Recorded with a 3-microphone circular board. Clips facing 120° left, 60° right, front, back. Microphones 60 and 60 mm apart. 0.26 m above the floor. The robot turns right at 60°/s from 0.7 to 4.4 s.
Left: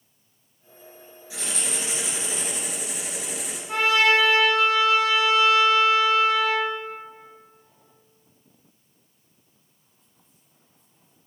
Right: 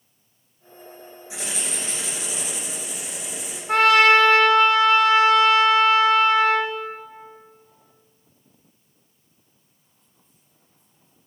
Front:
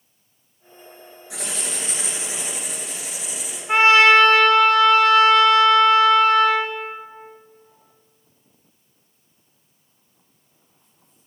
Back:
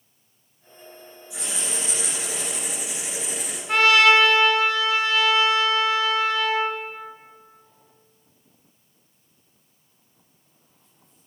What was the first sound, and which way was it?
Writing, 10° left.